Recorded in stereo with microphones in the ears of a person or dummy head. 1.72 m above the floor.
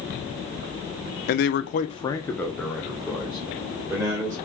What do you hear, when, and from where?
1.3 s a man speaking: 50° left (ahead or behind), 1.0 m; by 4.3 s 15° right (ahead or behind), 4 m